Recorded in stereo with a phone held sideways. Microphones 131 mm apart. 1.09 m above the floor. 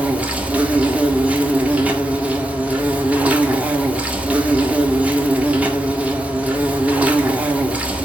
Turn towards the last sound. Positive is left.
turn(degrees=-10)  # may be behind; listen again after turning